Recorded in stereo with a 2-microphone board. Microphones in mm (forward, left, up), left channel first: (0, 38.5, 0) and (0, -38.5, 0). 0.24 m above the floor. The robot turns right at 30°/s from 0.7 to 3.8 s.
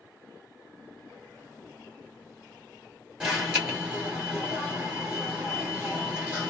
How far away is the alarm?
About 2 m.